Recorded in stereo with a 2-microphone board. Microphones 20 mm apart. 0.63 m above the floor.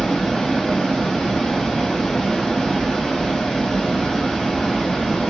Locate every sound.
0.0 s running water: 50° left (ahead or behind), 1.1 m